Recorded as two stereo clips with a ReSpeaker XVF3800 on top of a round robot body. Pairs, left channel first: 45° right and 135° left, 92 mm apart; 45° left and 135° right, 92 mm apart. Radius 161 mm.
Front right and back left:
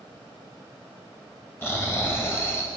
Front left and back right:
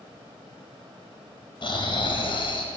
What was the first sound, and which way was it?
Snoring, 20° left.